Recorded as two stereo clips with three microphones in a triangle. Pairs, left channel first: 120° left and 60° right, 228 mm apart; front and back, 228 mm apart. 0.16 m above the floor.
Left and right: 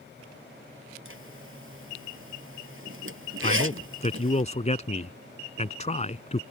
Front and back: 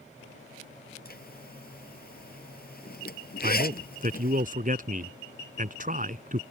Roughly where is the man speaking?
Behind.